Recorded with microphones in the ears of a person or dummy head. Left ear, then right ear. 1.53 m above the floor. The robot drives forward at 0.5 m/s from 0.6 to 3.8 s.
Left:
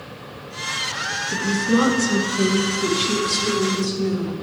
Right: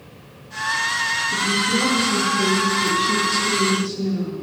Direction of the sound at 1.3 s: 60° left (ahead or behind).